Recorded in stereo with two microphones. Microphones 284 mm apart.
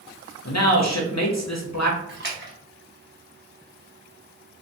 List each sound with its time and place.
0.5 s a man speaking: 65° left (ahead or behind), 0.8 m
2.1 s a splash: 40° right (ahead or behind), 0.9 m